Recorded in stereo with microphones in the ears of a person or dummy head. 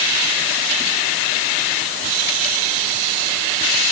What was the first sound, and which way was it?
Only background noise.